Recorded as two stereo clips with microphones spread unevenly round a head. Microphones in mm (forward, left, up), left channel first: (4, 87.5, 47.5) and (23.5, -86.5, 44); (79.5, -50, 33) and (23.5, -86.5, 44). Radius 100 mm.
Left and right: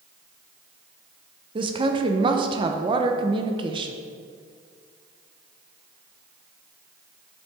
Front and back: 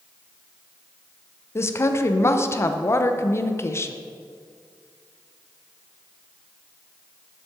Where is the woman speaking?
20° right, 0.7 m.